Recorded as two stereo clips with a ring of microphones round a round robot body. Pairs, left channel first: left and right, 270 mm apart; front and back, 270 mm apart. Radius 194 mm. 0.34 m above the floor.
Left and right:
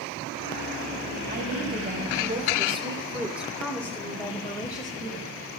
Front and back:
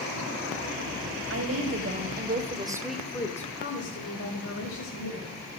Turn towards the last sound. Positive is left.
turn(degrees=15)